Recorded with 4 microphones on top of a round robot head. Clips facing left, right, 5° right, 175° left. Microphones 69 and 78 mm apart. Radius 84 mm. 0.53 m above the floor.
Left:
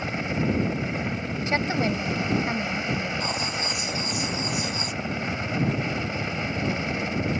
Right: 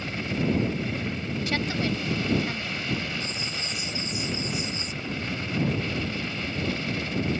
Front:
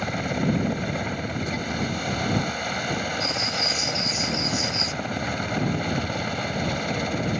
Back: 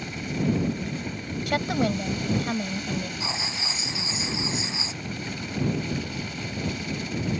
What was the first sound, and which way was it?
A helicopter, 20° left.